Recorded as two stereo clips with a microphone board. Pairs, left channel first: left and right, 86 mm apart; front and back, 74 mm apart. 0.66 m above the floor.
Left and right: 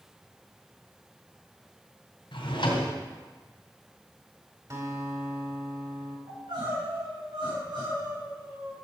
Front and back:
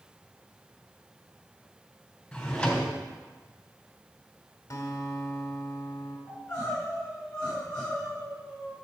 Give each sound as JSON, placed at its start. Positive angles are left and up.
{"t": 2.3, "sound": "a drawer", "azimuth_deg": 80, "distance_m": 3.0}
{"t": 4.7, "sound": "a guitar", "azimuth_deg": -45, "distance_m": 2.5}
{"t": 6.3, "sound": "crying", "azimuth_deg": -75, "distance_m": 5.5}